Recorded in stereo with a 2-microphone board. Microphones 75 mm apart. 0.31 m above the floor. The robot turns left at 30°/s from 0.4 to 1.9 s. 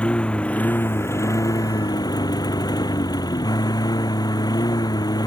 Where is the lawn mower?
165° left; by 5.3 s 120° left.